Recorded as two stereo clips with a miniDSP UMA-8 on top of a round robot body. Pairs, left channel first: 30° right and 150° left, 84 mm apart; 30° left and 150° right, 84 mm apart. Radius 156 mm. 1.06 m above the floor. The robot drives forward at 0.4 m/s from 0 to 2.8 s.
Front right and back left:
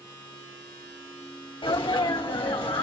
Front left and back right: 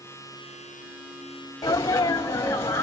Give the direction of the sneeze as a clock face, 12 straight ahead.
1 o'clock.